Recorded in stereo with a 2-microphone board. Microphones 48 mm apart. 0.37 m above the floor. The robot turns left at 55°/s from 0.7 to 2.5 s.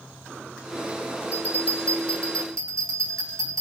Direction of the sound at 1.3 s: 30° right.